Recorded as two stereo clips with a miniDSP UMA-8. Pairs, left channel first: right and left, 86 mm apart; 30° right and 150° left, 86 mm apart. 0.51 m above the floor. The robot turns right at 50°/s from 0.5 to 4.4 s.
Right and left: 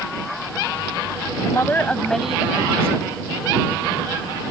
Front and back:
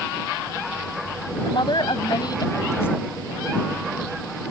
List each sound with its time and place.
1.4 s a woman speaking: 40° right; by 3.1 s 40° left